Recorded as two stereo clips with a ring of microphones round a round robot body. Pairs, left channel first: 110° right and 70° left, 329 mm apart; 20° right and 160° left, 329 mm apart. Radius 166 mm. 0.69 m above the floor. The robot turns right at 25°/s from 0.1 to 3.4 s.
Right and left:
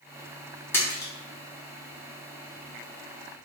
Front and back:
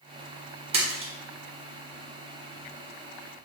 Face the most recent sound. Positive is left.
turn(degrees=-115)